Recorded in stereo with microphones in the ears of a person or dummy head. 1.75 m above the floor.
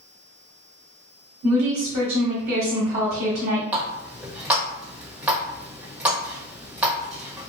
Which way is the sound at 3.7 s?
5° right (ahead or behind).